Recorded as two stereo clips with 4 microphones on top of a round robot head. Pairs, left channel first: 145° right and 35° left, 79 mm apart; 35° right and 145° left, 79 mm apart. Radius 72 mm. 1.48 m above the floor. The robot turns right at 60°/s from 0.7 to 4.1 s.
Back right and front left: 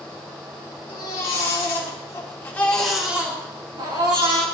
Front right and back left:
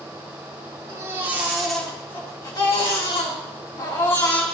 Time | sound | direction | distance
0.9 | a baby crying | 175° right | 3 m